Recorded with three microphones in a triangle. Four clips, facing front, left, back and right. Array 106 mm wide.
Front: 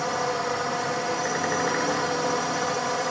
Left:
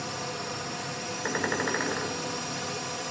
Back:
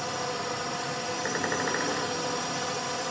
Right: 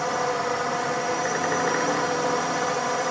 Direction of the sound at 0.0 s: 60° right.